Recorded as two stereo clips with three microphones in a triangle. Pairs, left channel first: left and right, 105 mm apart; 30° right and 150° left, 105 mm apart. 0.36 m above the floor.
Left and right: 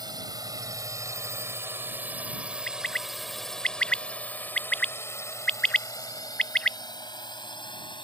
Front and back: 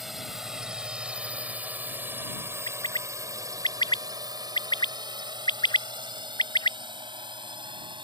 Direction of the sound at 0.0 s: 120° right.